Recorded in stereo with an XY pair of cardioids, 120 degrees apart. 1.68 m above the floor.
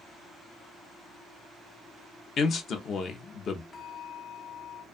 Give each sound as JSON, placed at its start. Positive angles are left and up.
{"t": 2.4, "sound": "a man speaking", "azimuth_deg": 50, "distance_m": 0.6}
{"t": 3.7, "sound": "a bell", "azimuth_deg": 25, "distance_m": 0.9}